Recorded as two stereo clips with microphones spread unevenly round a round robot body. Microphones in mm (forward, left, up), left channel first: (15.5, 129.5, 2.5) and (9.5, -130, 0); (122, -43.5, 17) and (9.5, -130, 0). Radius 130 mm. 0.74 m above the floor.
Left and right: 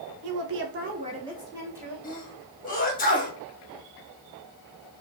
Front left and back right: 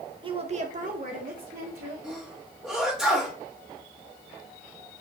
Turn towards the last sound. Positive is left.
turn(degrees=140)